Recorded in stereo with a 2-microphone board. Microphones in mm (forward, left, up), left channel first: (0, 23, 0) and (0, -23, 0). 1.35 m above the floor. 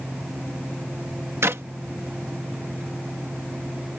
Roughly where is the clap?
Right.